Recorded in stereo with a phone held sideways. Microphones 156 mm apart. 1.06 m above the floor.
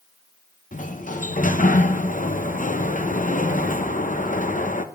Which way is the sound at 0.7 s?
55° left (ahead or behind).